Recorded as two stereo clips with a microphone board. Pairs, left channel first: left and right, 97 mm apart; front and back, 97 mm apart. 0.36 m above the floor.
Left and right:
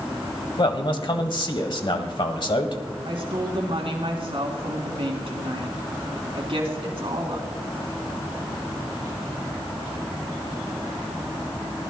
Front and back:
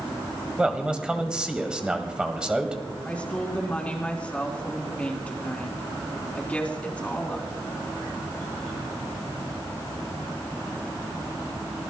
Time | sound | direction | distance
0.6 | a man speaking | 100° left | 1.5 m
3.0 | a woman speaking | 75° right | 3 m